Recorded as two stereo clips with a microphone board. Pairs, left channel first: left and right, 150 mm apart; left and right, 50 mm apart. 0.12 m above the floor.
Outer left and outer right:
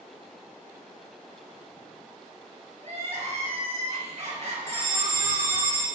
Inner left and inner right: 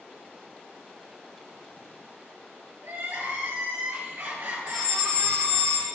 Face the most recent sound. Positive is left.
turn(degrees=25)  # may be behind; listen again after turning